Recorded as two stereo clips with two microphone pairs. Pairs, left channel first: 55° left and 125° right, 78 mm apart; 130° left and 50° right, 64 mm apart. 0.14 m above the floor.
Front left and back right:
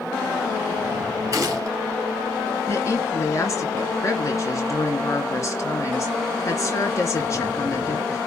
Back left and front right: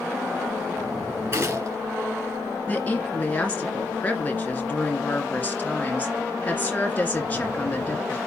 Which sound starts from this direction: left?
A woman speaking, at 2.7 s.